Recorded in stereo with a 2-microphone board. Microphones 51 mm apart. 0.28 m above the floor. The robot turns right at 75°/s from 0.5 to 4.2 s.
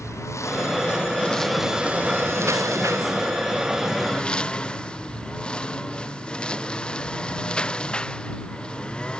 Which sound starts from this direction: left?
A lawn mower, at 0.0 s.